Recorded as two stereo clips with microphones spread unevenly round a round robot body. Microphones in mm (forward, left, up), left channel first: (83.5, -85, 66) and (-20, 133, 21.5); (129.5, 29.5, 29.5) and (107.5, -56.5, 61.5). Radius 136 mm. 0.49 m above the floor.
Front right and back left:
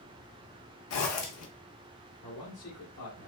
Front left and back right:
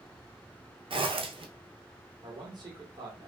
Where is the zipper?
75° right, 0.8 m.